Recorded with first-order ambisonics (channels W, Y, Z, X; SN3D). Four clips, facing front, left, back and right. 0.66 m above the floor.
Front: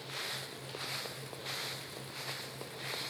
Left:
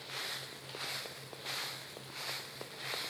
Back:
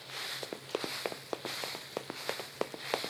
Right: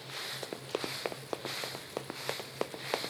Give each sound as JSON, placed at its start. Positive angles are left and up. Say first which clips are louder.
{"t": 0.4, "sound": "running footsteps", "louder": "right 6 dB, back 4 dB", "azimuth_deg": -130}